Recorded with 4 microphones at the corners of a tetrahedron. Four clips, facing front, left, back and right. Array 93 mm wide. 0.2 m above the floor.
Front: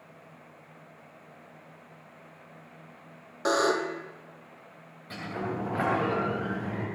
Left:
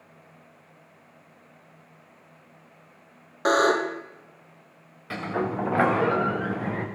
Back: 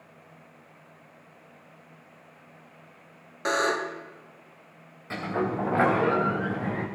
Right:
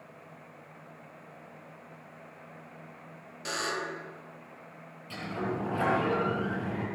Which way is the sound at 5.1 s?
115° left.